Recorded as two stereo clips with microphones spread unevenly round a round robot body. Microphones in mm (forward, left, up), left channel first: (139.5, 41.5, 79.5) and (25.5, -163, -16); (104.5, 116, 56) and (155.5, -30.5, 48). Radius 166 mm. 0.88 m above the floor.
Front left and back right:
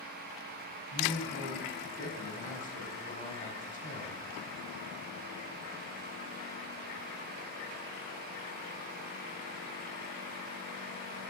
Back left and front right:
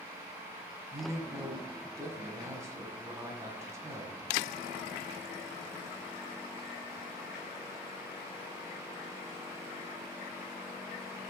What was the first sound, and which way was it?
A man speaking, straight ahead.